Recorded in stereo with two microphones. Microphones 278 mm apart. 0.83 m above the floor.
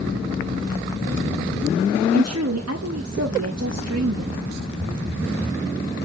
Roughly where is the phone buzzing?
Right.